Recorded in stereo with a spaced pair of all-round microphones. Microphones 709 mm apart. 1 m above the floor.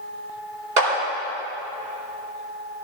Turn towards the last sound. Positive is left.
turn(degrees=-85)